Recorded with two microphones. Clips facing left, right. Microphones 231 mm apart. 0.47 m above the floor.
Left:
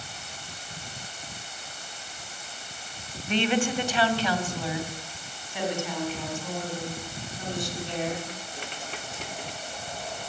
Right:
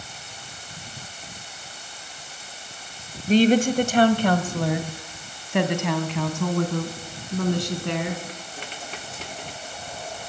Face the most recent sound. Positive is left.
turn(degrees=-70)  # may be behind; listen again after turning